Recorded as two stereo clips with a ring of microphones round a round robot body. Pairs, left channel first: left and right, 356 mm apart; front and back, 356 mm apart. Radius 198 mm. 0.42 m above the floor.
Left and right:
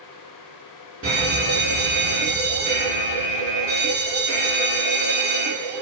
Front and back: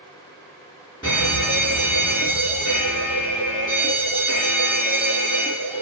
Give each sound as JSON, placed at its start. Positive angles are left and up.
{"t": 1.0, "sound": "a fire alarm", "azimuth_deg": -65, "distance_m": 2.5}